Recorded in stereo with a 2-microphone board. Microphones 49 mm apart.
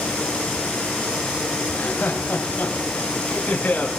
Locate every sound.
1.7 s laughter: 35° left (ahead or behind), 3 m